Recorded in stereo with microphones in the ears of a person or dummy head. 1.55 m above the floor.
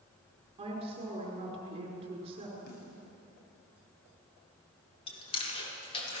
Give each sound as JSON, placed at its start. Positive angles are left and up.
{"t": 0.6, "sound": "a woman speaking", "side_deg": -35, "distance_m": 5.0}
{"t": 2.7, "sound": "a snare drum", "side_deg": 60, "distance_m": 6.0}
{"t": 5.1, "sound": "chewing", "side_deg": 25, "distance_m": 5.0}